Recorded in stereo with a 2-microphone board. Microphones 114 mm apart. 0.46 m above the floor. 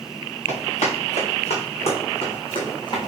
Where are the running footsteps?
75° left (ahead or behind), 2.5 m; by 3.1 s 40° left (ahead or behind), 1.4 m.